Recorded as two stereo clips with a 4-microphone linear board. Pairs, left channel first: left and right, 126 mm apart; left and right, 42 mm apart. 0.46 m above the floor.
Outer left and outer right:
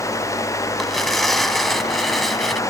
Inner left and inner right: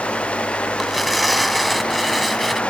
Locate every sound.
0.8 s tearing paper: centre (ahead or behind)